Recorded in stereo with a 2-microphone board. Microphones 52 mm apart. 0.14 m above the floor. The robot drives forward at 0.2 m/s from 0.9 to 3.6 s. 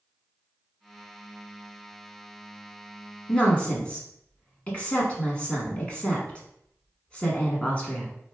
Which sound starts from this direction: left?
A woman speaking, at 3.3 s.